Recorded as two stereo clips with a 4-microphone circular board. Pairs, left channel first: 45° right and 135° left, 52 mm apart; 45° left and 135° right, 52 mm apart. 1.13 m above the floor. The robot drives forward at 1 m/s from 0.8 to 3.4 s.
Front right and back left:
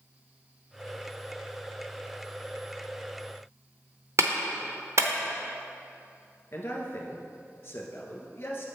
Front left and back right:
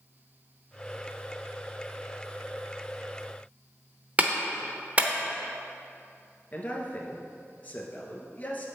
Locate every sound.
4.2 s a clap: 165° left, 0.7 m
6.5 s a man speaking: straight ahead, 1.3 m